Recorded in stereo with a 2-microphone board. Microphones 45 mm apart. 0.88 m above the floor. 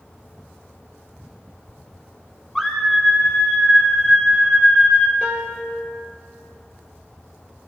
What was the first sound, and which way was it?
A scream, 10° left (ahead or behind).